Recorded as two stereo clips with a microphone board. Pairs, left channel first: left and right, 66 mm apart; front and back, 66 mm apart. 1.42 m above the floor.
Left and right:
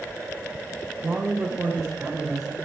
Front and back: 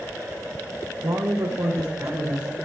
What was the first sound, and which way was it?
A woman speaking, 165° right.